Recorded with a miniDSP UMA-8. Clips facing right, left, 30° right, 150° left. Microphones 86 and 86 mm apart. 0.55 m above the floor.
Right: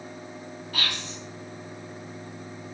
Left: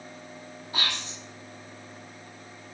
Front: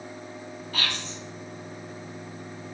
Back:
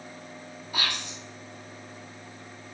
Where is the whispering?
105° left, 0.6 m.